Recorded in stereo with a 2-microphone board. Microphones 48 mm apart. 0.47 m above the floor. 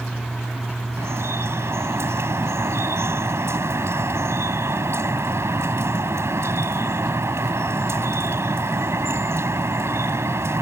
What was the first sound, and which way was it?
Dripping, 65° right (ahead or behind).